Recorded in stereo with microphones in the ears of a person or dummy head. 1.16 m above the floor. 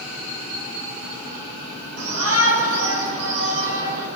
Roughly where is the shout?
Right.